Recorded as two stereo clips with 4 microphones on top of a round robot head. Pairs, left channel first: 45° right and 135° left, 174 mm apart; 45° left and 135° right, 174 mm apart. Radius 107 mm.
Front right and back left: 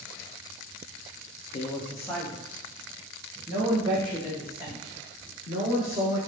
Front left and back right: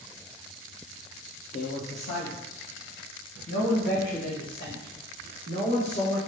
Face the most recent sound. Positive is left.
turn(degrees=80)